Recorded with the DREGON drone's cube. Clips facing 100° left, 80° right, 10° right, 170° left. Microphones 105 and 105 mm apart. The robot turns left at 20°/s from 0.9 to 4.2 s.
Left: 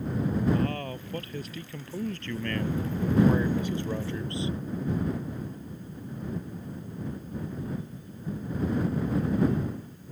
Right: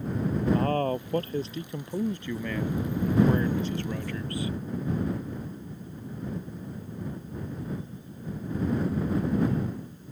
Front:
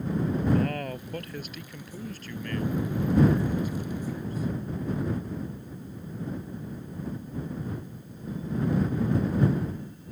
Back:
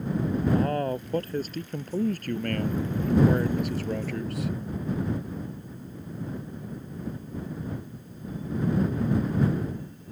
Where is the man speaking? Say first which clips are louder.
Right 4 dB, back 3 dB; 130° right; by 4.5 s 165° left.